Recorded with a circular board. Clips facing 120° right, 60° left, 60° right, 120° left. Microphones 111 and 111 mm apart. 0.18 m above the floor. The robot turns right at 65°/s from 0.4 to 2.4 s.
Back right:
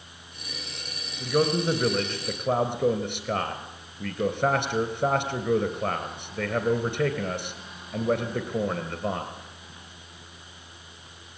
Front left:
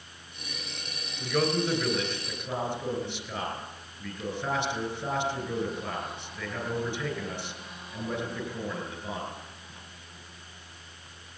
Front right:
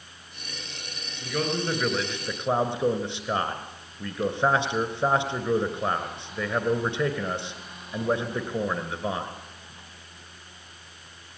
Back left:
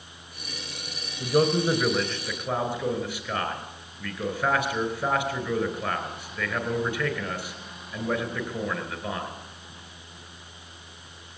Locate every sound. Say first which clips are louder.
1.2 s a man speaking: back right 3 dB, back left 6 dB; 160° left, 3 m; by 9.3 s 120° right, 3 m